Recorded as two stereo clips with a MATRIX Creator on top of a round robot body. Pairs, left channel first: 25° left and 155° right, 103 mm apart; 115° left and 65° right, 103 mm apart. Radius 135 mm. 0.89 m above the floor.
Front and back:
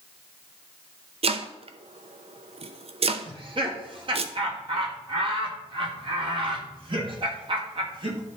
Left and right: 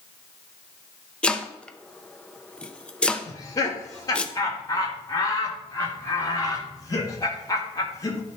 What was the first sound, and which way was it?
Chopping, 165° right.